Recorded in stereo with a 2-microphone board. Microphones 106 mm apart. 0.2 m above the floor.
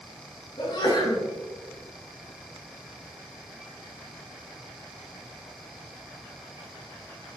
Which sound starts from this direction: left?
A sneeze, at 0.6 s.